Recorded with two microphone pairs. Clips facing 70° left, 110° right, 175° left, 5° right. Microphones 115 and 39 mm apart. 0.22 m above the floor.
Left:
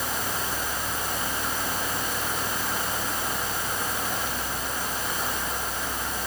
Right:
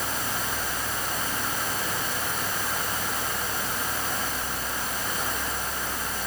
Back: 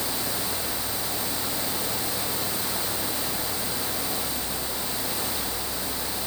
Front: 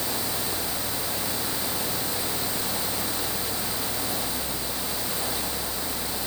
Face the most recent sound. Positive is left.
No sound to turn to.